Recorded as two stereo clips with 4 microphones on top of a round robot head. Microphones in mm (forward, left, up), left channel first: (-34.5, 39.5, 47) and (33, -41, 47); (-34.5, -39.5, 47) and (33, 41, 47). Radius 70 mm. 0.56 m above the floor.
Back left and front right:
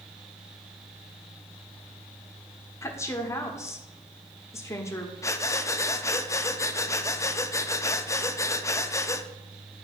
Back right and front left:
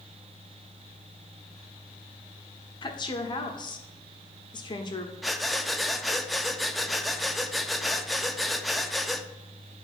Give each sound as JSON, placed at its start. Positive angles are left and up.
{"t": 2.8, "sound": "a woman speaking", "azimuth_deg": -170, "distance_m": 1.4}
{"t": 5.2, "sound": "breathing", "azimuth_deg": 140, "distance_m": 0.7}